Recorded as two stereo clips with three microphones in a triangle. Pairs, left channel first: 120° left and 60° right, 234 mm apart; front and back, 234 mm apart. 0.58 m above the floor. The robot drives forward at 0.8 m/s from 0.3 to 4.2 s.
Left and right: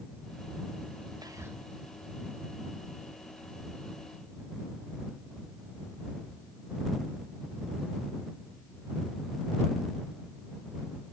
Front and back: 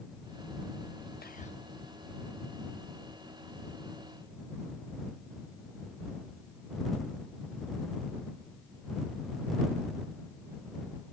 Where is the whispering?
5° left, 0.8 m; by 1.6 s 15° left, 0.6 m.